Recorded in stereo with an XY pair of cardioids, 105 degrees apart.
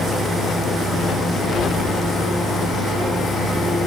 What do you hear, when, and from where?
0.0 s a fan: 50° left, 6 m